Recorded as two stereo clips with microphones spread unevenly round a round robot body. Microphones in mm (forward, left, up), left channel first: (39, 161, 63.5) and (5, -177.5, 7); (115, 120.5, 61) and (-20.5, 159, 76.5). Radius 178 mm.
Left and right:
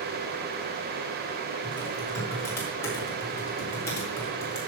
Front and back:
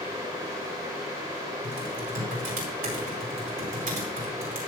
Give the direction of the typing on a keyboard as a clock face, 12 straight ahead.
6 o'clock.